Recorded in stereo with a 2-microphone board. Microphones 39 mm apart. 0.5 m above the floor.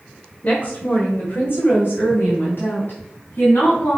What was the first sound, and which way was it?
A woman speaking, 40° left (ahead or behind).